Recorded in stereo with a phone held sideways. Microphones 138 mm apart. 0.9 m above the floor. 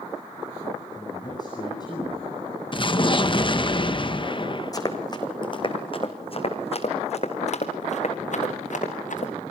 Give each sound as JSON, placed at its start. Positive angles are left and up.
{"t": 0.9, "sound": "a man speaking", "side_deg": 30, "distance_m": 7.5}
{"t": 2.7, "sound": "an explosion", "side_deg": 35, "distance_m": 0.7}
{"t": 4.7, "sound": "running footsteps", "side_deg": 25, "distance_m": 2.5}